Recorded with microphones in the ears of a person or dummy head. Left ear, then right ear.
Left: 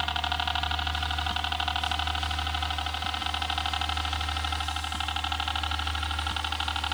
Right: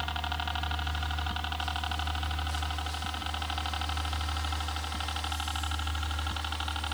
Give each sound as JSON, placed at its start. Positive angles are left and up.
{"t": 0.0, "sound": "a helicopter", "side_deg": 30}